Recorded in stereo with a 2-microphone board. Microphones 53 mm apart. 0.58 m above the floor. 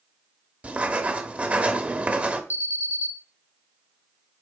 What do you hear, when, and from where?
0.6 s writing: 30° right (ahead or behind), 1.0 m
2.5 s an alarm: 45° right (ahead or behind), 1.1 m